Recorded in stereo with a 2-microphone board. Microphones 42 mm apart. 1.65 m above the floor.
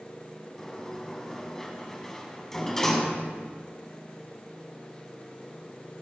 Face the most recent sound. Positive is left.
turn(degrees=10)  # may be behind; listen again after turning